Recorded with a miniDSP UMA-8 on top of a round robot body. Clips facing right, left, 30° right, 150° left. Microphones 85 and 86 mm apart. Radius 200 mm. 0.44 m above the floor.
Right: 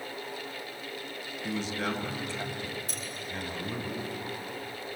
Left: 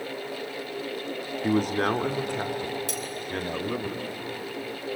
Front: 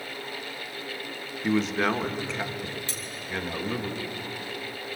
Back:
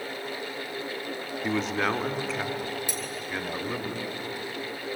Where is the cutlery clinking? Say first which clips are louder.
Left 7 dB, back 4 dB; 75° left, 2.5 m.